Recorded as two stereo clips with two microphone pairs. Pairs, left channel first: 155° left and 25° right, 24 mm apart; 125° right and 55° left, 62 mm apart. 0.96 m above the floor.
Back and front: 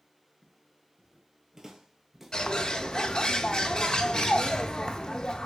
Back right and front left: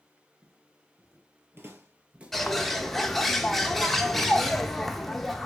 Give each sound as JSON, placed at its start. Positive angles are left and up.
{"t": 0.4, "sound": "footsteps", "azimuth_deg": 30, "distance_m": 2.0}
{"t": 2.3, "sound": "a bird", "azimuth_deg": 150, "distance_m": 0.6}